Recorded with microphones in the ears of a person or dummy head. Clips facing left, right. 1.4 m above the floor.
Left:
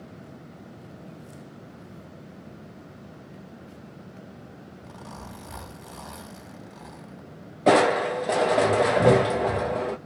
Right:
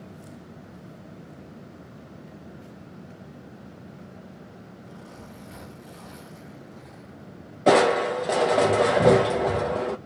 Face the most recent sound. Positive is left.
turn(degrees=0)  # may be behind; listen again after turning